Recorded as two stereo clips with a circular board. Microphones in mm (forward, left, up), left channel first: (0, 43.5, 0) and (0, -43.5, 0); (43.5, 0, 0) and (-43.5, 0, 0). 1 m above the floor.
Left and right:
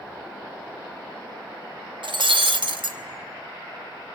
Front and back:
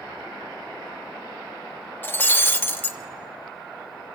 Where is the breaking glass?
65° right, 0.9 m.